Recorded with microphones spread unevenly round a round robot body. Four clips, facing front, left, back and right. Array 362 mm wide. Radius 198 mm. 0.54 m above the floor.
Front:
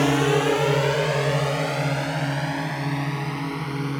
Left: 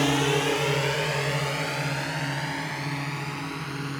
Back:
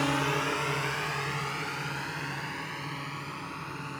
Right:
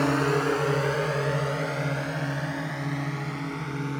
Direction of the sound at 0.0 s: Straight ahead.